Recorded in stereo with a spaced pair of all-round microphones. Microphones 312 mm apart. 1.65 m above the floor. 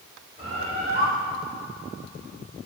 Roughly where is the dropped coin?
No dropped coin in this recording.